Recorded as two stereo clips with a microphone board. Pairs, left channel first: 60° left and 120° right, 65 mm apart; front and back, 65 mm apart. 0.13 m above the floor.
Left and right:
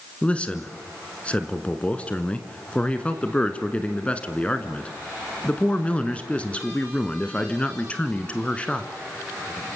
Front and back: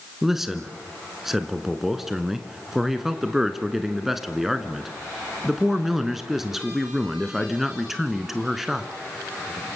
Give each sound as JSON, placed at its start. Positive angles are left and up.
{"t": 0.2, "sound": "a man speaking", "azimuth_deg": 100, "distance_m": 1.6}